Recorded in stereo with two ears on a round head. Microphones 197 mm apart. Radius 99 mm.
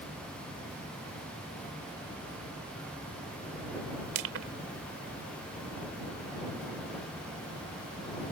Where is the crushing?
70° right (ahead or behind).